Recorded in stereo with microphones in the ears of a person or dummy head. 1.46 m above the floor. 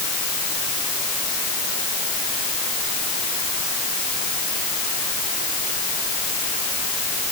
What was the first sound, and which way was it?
Only background noise.